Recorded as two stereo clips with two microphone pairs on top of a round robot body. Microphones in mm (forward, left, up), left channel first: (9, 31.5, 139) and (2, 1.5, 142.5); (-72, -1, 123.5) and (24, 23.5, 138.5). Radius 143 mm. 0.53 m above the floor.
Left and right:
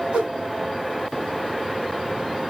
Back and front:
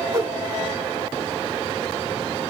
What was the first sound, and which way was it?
A whoosh, 50° right.